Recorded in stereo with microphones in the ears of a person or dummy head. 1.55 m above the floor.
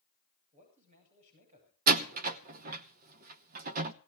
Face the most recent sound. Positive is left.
turn(degrees=-40)  # may be behind; listen again after turning